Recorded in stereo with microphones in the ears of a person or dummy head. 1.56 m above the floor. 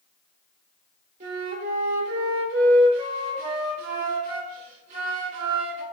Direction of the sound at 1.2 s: 40° right (ahead or behind).